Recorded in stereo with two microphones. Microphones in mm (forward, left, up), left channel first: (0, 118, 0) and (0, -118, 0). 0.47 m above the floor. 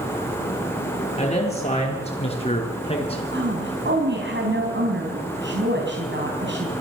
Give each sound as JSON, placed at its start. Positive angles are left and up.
{"t": 1.2, "sound": "a man speaking", "side_deg": 25, "distance_m": 7.0}
{"t": 3.3, "sound": "a woman speaking", "side_deg": -50, "distance_m": 4.0}